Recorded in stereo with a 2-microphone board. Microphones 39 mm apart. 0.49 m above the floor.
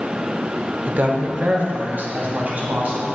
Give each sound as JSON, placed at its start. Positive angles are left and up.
{"t": 0.9, "sound": "a woman speaking", "side_deg": -40, "distance_m": 0.9}